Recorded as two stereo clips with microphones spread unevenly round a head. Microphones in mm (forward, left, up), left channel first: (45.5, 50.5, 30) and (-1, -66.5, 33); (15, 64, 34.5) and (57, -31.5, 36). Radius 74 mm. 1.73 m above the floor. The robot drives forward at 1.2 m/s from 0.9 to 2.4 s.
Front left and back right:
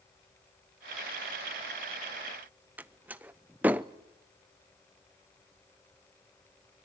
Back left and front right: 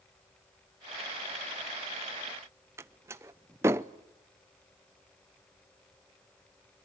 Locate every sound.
2.8 s a door slam: 55° right, 0.5 m